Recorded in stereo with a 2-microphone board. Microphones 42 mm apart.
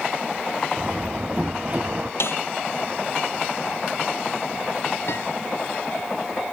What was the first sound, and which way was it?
A door slam, 30° right (ahead or behind).